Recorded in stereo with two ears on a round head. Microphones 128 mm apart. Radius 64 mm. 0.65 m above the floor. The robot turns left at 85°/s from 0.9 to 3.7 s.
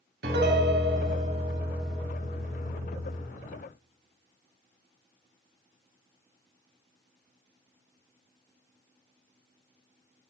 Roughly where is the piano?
Right.